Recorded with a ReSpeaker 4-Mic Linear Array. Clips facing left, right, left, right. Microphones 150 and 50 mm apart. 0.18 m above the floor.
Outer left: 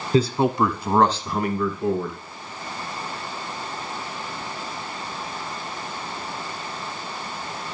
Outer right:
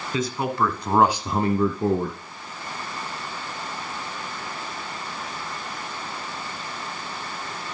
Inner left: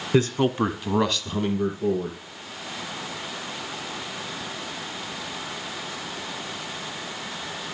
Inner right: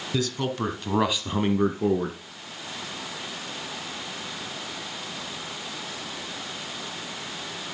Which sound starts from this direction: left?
A man speaking, at 0.1 s.